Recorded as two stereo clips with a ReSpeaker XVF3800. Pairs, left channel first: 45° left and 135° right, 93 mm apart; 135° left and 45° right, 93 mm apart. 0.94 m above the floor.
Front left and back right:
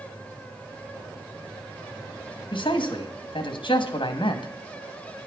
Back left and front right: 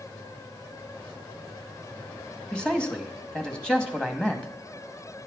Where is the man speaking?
55° left, 1.8 m.